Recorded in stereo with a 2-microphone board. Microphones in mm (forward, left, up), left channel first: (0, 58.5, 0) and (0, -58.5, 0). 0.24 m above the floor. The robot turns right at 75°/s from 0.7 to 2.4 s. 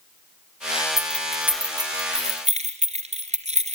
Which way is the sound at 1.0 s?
25° left (ahead or behind).